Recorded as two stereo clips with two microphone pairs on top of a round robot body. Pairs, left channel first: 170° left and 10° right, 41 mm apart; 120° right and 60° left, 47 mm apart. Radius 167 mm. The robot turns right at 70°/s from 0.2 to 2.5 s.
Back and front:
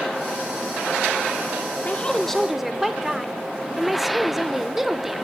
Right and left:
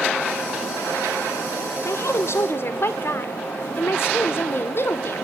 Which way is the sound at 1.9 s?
135° right.